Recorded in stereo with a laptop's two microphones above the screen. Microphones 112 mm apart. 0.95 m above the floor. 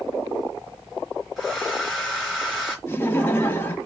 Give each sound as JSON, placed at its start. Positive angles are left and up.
{"t": 1.4, "sound": "a hair dryer", "side_deg": -5, "distance_m": 4.0}
{"t": 2.9, "sound": "laughter", "side_deg": 15, "distance_m": 1.6}